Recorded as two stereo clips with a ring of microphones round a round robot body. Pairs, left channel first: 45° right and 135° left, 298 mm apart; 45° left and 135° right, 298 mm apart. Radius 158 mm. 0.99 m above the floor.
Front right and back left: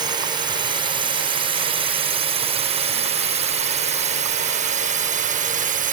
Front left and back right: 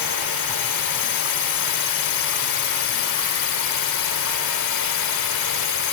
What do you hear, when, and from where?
0.0 s a drone: 60° left; by 6.0 s 70° left